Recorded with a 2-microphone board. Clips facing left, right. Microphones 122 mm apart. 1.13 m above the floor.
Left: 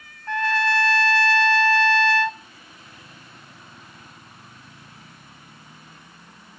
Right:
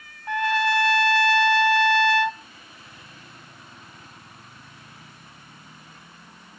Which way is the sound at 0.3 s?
15° right (ahead or behind).